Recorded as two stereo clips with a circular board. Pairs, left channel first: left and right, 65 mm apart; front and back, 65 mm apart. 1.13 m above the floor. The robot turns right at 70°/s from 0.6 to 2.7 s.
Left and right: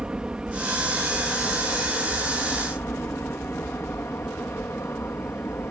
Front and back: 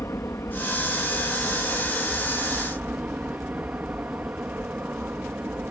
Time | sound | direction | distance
0.0 | an aircraft | 20° right | ?